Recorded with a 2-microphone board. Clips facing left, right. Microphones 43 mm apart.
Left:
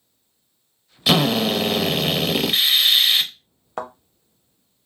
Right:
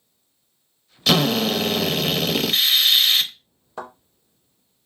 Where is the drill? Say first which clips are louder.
Left 1 dB; 15° left (ahead or behind), 0.5 m.